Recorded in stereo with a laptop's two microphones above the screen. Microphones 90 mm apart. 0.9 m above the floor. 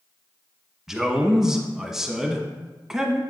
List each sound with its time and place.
0.9 s a man speaking: 5° right (ahead or behind), 1.1 m